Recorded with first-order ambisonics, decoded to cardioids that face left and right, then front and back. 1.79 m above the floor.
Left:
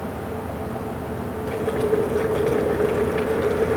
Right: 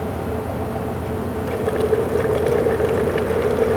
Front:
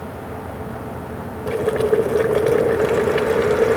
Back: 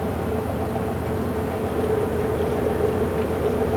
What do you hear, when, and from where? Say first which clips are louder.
1.5 s boiling: right 2 dB, front 9 dB; 20° right, 2.5 m